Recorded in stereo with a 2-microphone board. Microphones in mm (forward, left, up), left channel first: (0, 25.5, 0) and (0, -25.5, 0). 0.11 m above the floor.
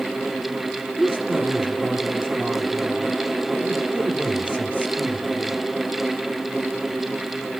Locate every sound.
1.0 s a woman speaking: 20° left (ahead or behind), 5.5 m